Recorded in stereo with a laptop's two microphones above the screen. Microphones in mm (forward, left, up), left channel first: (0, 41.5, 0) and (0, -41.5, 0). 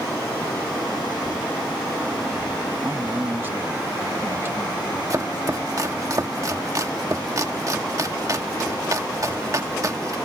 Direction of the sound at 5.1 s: 45° right (ahead or behind).